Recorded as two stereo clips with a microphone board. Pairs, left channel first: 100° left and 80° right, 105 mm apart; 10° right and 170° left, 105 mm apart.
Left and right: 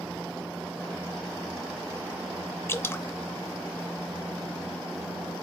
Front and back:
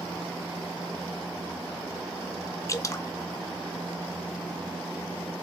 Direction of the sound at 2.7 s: 40° left.